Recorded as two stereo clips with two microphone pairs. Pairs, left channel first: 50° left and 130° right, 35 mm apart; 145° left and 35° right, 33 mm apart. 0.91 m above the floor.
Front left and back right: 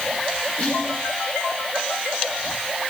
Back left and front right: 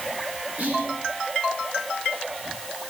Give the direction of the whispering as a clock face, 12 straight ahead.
12 o'clock.